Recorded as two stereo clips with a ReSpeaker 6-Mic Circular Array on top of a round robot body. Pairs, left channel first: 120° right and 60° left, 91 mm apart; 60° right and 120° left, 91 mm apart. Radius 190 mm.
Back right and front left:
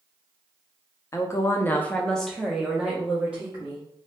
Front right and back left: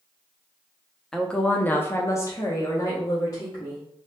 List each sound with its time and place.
1.1 s a woman speaking: 140° right, 0.8 m; by 3.8 s 10° right, 1.4 m